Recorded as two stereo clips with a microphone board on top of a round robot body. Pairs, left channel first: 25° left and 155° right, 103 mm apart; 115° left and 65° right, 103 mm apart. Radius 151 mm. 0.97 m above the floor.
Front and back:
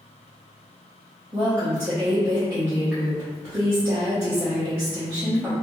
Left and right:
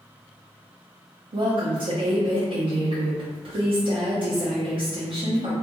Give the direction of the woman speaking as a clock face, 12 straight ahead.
3 o'clock.